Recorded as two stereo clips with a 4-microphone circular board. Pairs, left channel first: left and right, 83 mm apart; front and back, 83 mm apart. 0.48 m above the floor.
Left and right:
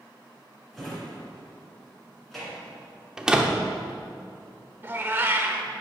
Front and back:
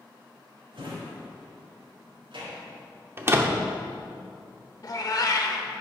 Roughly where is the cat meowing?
Ahead right.